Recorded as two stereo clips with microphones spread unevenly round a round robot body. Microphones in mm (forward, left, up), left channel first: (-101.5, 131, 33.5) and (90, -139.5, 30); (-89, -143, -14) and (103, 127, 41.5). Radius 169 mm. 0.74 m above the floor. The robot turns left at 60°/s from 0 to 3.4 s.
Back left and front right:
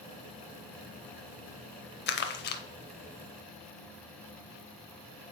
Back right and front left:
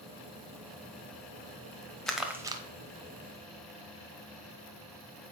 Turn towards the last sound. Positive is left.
turn(degrees=50)